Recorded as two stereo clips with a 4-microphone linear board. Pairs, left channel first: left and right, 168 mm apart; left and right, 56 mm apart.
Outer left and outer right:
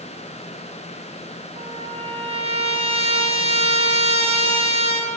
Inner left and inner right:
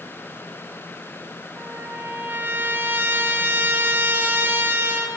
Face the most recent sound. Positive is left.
turn(degrees=-35)  # may be behind; listen again after turning